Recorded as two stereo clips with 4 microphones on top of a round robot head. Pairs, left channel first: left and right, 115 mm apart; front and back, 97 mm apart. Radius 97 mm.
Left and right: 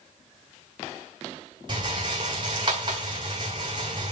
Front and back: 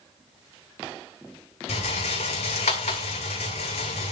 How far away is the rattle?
About 1.8 m.